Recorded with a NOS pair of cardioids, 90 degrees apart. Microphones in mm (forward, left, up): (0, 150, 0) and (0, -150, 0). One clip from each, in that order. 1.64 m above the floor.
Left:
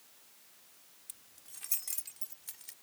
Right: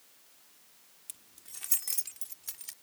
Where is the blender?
I don't hear a blender.